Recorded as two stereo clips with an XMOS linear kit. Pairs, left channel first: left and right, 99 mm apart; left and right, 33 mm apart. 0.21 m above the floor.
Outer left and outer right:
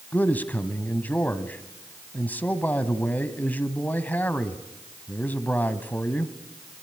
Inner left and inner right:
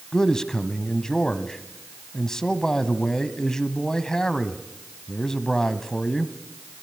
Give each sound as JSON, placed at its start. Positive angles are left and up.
{"t": 0.1, "sound": "a man speaking", "side_deg": 15, "distance_m": 1.3}